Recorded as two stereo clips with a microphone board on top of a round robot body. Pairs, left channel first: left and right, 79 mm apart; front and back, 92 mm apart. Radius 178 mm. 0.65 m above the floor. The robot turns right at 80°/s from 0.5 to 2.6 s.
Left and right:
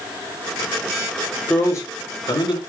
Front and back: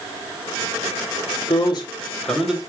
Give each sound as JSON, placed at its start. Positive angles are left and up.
{"t": 1.5, "sound": "a man speaking", "azimuth_deg": 15, "distance_m": 3.5}